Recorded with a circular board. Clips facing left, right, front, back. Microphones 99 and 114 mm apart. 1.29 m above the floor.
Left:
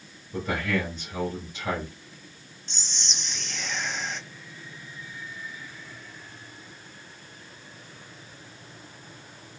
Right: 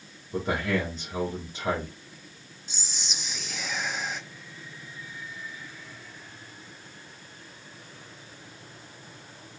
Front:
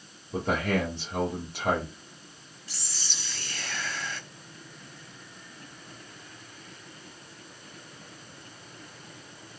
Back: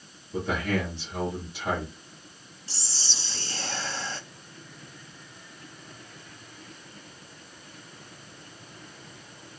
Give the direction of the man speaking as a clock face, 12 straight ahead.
1 o'clock.